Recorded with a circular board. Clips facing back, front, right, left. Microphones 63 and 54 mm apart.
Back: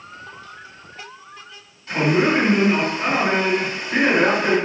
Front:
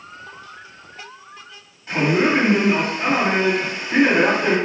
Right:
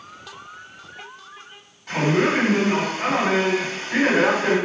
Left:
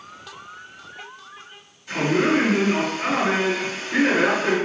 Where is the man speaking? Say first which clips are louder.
Even, even; 65° right, 1.5 m.